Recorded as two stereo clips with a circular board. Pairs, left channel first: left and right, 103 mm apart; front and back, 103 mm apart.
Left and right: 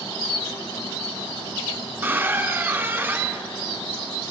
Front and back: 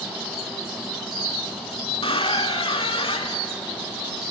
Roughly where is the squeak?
Ahead.